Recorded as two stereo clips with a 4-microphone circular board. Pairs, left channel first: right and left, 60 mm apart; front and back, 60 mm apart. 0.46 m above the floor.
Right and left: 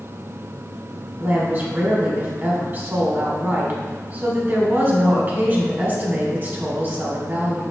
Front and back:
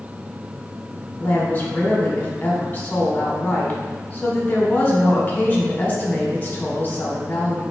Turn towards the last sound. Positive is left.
turn(degrees=50)